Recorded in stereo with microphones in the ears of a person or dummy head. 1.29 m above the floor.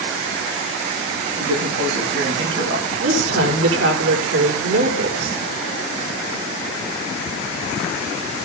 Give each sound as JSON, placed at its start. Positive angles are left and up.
{"t": 1.4, "sound": "a man speaking", "side_deg": -75, "distance_m": 8.5}
{"t": 3.0, "sound": "a woman speaking", "side_deg": -80, "distance_m": 5.0}